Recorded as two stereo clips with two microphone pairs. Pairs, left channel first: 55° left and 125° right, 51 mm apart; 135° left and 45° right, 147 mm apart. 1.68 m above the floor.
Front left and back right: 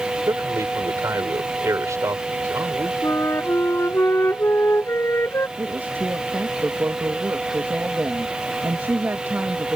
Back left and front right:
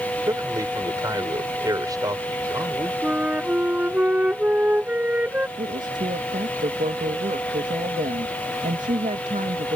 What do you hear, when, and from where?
0.3 s a man speaking: 110° right
3.0 s a flute: 35° left
5.6 s a woman speaking: 80° right